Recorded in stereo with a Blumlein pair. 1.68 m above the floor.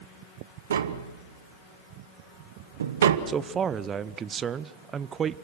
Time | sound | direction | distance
0.7 | tapping | 65° right | 1.0 m
3.3 | a man speaking | 20° right | 0.6 m